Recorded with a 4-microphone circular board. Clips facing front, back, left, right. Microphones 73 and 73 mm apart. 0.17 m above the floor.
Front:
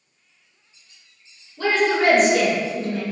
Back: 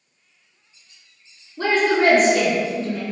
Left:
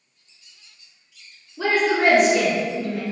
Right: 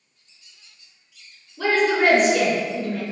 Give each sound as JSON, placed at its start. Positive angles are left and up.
{"t": 1.6, "sound": "a woman speaking", "azimuth_deg": 160, "distance_m": 2.0}